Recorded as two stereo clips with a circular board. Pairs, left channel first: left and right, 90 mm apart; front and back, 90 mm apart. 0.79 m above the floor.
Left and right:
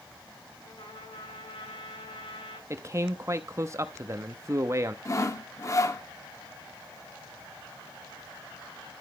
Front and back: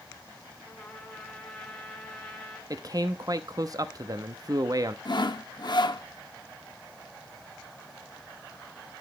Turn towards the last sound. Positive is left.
turn(degrees=35)